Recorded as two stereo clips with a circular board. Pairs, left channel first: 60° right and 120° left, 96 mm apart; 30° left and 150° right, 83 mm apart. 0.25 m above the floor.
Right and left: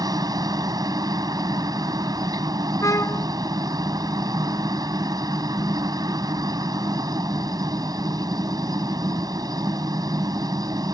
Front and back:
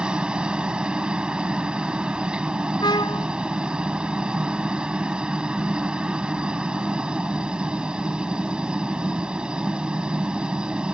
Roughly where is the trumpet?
Ahead.